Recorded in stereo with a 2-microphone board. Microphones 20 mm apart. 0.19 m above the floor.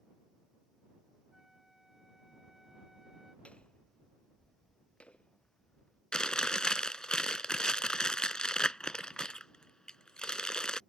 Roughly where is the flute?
Centre.